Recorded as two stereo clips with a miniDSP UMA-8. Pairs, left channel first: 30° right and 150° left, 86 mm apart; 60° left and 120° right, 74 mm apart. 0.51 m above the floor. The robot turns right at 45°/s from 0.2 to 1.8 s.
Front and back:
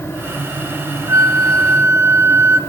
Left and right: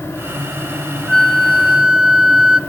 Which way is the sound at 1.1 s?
130° left.